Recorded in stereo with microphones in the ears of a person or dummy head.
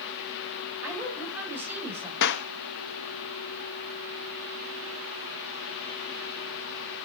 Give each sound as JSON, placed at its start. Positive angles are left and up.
{"t": 0.8, "sound": "a woman speaking", "side_deg": -10, "distance_m": 7.5}
{"t": 2.2, "sound": "a clap", "side_deg": 60, "distance_m": 0.8}